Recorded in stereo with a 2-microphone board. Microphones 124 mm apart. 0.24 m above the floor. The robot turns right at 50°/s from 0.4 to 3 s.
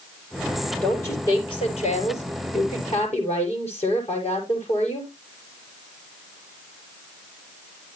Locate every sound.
0.8 s a woman speaking: 10° left, 7 m; by 5.1 s 120° left, 7 m